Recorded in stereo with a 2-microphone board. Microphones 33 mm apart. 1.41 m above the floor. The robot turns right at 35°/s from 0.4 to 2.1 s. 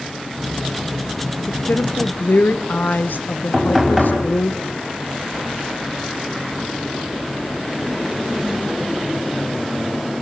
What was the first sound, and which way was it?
A woman speaking, 65° left (ahead or behind).